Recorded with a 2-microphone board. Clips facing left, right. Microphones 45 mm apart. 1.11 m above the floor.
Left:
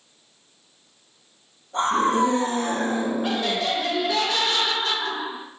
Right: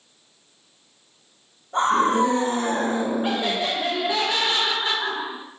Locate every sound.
1.7 s a scream: 75° right (ahead or behind), 2.0 m
3.2 s laughter: 20° right (ahead or behind), 0.6 m